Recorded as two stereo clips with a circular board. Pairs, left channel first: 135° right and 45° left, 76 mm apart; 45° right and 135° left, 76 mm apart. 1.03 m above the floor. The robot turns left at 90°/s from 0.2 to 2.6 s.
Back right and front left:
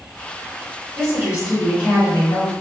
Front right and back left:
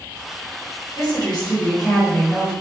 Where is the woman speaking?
10° left, 1.2 m; by 2.5 s 130° right, 1.2 m.